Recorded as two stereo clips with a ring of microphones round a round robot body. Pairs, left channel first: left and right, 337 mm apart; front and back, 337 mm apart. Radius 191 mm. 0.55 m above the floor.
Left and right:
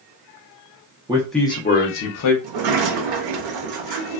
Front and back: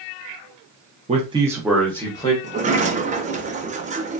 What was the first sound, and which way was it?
A man speaking, 145° right.